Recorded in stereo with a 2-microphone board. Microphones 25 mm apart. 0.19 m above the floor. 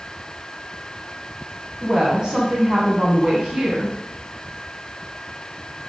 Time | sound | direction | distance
1.8 | a woman speaking | 30° right (ahead or behind) | 1.6 m